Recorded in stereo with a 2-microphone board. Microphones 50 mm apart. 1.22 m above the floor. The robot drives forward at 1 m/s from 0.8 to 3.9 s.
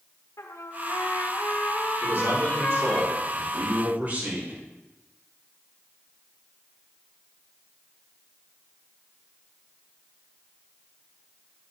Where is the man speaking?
50° right (ahead or behind), 4.5 m; by 4.6 s 35° right (ahead or behind), 6 m.